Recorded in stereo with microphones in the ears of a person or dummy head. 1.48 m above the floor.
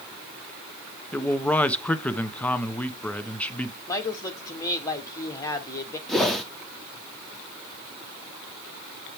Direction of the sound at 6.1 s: Centre (ahead or behind).